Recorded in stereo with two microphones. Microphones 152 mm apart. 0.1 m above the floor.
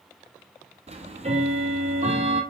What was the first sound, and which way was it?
Ticking, 45° right (ahead or behind).